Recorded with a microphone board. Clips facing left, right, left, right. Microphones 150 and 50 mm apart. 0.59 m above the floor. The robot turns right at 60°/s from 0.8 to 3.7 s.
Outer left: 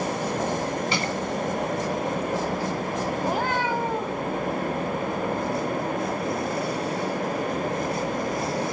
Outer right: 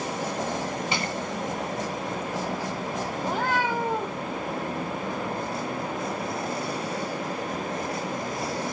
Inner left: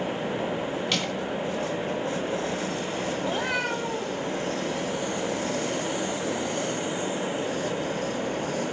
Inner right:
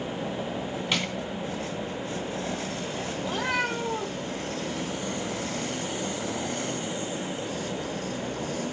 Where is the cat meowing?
15° left (ahead or behind), 3 m; by 4.2 s 15° right (ahead or behind), 3 m.